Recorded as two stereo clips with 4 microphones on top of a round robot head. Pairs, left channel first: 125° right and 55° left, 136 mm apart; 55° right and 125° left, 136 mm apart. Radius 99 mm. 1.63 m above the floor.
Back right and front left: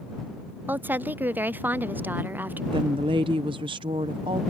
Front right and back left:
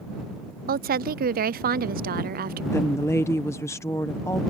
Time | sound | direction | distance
0.7 | a woman speaking | 130° left | ?
2.7 | a woman speaking | 10° left | ?